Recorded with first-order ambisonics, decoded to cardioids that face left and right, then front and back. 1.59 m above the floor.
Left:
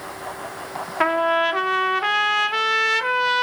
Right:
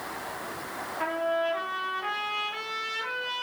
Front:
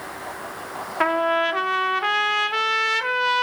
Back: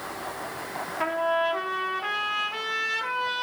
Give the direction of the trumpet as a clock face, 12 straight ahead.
10 o'clock.